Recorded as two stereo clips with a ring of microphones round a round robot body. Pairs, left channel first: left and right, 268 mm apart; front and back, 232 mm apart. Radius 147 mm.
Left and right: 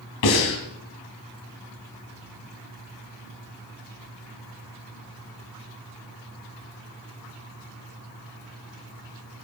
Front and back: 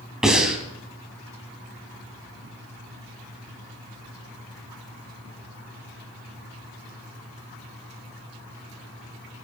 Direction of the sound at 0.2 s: 90° left.